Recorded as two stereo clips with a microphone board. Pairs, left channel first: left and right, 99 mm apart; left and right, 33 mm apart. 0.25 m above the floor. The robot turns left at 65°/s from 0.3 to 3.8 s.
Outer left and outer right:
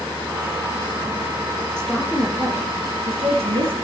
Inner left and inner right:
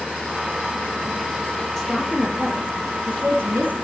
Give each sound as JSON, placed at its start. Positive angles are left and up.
{"t": 1.8, "sound": "a woman speaking", "azimuth_deg": 10, "distance_m": 5.5}